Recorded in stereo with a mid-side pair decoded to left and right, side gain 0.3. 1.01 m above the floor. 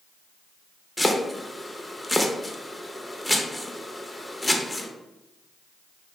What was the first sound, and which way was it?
Chopping, 15° left.